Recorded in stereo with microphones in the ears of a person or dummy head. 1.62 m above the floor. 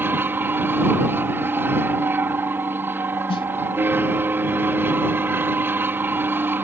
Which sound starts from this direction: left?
A snare drum, at 3.3 s.